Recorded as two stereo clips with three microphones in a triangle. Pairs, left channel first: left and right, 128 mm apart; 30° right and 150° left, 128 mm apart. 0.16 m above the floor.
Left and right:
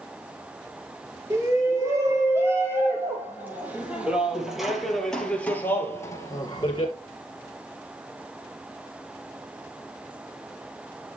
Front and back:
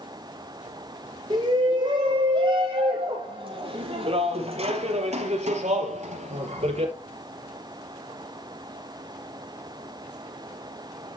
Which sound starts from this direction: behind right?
A shout, at 1.3 s.